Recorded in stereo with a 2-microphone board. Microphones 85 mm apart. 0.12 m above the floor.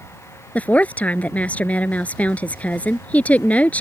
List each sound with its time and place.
0.6 s a woman speaking: 15° left (ahead or behind)